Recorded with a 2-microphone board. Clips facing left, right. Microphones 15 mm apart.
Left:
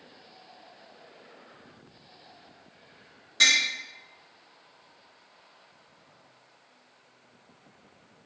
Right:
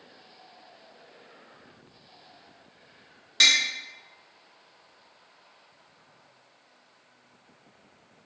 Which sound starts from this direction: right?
Tapping, at 3.4 s.